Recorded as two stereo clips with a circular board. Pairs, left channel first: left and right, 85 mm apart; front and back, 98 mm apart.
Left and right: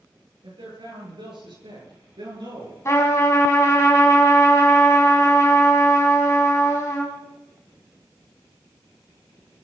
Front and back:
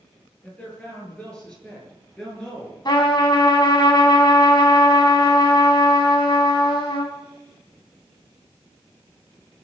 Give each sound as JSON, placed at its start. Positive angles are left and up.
{"t": 0.4, "sound": "a man speaking", "azimuth_deg": -80, "distance_m": 9.0}
{"t": 2.9, "sound": "a trumpet", "azimuth_deg": 35, "distance_m": 3.5}